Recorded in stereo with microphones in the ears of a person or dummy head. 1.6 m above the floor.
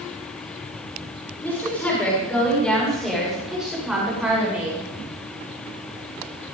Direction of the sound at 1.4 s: 10° left (ahead or behind).